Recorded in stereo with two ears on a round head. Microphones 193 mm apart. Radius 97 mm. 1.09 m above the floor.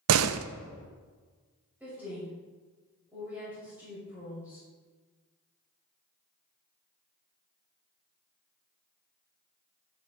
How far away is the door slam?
About 0.6 m.